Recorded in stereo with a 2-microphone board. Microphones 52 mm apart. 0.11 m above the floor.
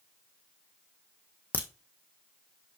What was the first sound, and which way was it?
A crack, 30° left (ahead or behind).